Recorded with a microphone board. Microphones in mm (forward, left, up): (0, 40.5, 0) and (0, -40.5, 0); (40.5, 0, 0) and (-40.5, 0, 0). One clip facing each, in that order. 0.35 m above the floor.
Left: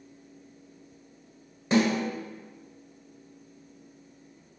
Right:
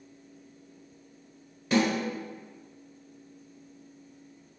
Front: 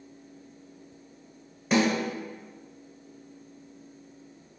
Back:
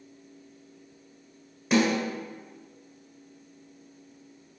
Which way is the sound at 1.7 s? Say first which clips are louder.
Left 2 dB, back 1 dB; 90° left.